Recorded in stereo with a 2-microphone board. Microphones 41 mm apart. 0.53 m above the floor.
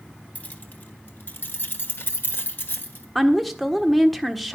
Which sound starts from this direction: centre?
A woman speaking, at 3.1 s.